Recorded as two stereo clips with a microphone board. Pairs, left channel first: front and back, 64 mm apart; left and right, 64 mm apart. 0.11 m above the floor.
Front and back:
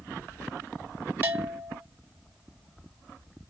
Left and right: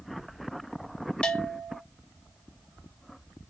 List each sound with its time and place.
1.2 s a bell: 150° left, 0.7 m